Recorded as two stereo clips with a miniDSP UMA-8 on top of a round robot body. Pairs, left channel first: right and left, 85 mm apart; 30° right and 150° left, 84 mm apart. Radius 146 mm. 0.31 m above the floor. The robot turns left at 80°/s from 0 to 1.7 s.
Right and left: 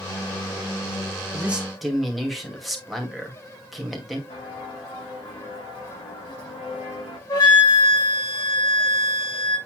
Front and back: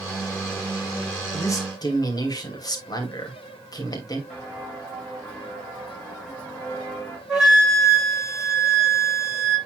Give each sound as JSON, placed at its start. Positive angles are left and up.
{"t": 1.3, "sound": "a man speaking", "azimuth_deg": 30, "distance_m": 2.5}
{"t": 4.3, "sound": "footsteps", "azimuth_deg": -110, "distance_m": 5.5}
{"t": 7.3, "sound": "a flute", "azimuth_deg": -125, "distance_m": 5.5}